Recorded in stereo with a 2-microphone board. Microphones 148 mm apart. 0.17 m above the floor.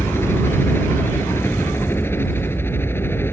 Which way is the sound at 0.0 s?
15° left (ahead or behind).